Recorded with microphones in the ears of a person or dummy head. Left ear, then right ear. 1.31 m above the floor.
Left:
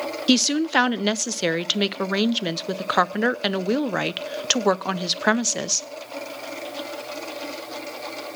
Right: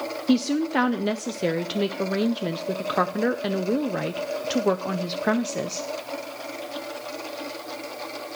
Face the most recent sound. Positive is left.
turn(degrees=45)  # may be behind; listen again after turning